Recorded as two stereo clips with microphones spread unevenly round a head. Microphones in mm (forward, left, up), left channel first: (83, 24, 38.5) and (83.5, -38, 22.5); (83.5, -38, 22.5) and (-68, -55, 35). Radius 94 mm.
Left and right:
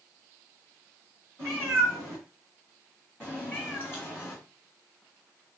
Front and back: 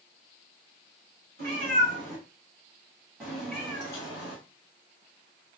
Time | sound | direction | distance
1.4 | a cat meowing | 165° left | 1.4 m